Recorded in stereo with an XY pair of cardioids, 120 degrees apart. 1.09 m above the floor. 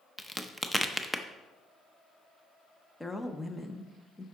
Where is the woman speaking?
10° left, 0.8 m.